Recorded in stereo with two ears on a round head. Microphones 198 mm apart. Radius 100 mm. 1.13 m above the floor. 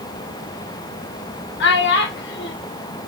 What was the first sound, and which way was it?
A child speaking, 55° left (ahead or behind).